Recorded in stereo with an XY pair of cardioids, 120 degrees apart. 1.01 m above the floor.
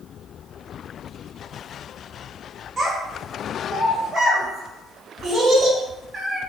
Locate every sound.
2.8 s a child speaking: 45° right, 1.1 m